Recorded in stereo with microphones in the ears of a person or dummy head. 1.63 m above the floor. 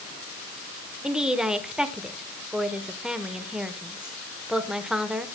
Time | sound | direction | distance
1.0 | a woman speaking | centre (ahead or behind) | 1.1 m